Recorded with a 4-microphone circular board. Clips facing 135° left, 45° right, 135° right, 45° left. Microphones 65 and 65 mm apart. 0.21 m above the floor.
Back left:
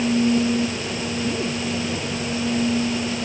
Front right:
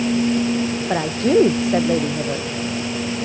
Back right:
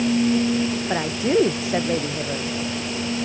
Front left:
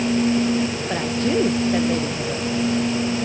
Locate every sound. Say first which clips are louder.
0.9 s a woman speaking: front right 9 dB, back right 1 dB; 60° right